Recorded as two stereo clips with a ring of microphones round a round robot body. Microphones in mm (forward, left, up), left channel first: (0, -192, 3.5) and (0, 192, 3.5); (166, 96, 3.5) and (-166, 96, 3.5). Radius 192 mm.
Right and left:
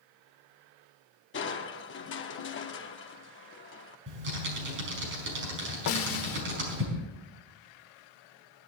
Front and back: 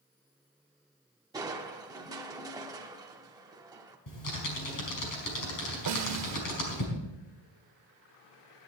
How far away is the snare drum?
About 0.8 m.